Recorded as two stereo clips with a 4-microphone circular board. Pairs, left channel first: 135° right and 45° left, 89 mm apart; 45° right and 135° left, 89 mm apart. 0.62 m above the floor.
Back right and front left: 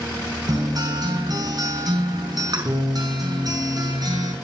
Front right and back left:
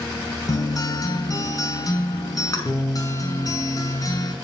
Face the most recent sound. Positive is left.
turn(degrees=5)